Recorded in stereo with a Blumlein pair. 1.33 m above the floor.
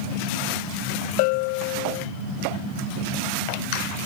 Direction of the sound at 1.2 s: 45° left.